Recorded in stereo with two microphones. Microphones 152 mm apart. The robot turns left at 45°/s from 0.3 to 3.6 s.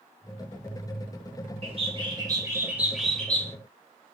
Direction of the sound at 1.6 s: 115° right.